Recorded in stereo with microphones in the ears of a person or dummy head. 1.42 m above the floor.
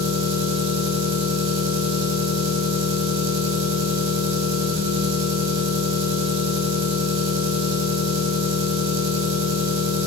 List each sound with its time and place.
0.0 s an engine running: 70° right (ahead or behind), 4 m